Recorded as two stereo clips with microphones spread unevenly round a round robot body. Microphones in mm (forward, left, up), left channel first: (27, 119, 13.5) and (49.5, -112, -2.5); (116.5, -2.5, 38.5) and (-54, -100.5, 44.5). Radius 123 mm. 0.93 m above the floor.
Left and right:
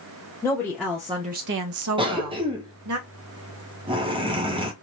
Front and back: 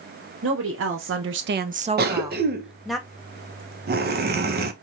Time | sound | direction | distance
0.4 | a woman speaking | 175° left | 0.9 m
2.0 | a cough | 145° right | 0.7 m